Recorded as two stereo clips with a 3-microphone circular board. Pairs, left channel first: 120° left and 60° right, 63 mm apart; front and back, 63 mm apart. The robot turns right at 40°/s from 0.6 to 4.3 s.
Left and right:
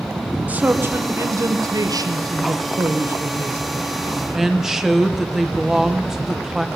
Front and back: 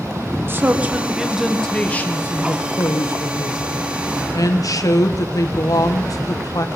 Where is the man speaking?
125° right, 1.3 m; by 6.7 s 25° left, 1.3 m.